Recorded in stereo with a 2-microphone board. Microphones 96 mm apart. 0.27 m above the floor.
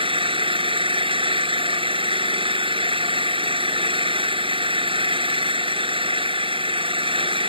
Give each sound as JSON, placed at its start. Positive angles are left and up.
{"t": 0.0, "sound": "an engine running", "side_deg": -65}